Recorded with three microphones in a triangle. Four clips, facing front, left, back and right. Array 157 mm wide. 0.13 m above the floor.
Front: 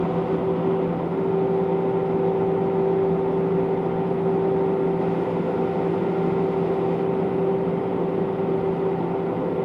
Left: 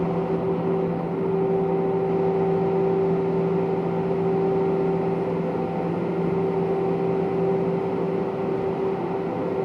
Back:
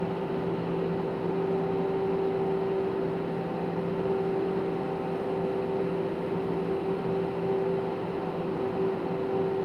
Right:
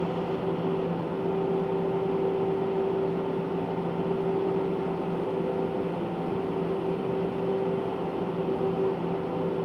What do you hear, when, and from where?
Only background noise.